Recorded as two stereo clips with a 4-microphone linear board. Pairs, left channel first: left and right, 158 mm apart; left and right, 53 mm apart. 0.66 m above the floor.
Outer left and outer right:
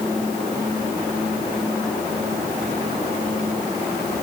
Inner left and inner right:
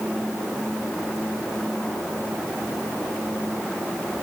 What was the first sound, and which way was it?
Only background noise.